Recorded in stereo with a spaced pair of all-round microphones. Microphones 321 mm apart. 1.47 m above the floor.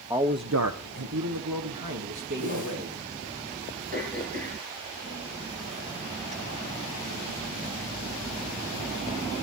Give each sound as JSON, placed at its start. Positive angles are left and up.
{"t": 0.1, "sound": "a man speaking", "side_deg": -10, "distance_m": 0.8}
{"t": 2.4, "sound": "a whoosh", "side_deg": -65, "distance_m": 7.0}
{"t": 3.9, "sound": "throat clearing", "side_deg": -25, "distance_m": 9.5}